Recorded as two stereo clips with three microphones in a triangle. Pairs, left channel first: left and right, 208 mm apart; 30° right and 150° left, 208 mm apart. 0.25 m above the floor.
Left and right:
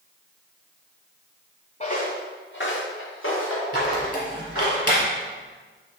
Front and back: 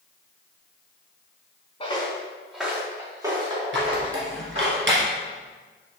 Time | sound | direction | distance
1.8 | footsteps | 30° left | 1.2 m
3.7 | a squeak | 125° left | 2.5 m